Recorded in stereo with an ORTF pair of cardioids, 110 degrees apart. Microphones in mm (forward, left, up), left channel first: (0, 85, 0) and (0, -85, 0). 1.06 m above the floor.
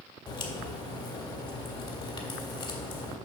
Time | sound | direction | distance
0.3 | a crack | 35° left | 1.9 m